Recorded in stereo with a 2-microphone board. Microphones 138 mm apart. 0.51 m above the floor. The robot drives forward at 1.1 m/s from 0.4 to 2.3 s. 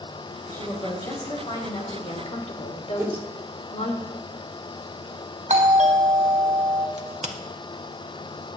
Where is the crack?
55° right (ahead or behind), 1.3 m.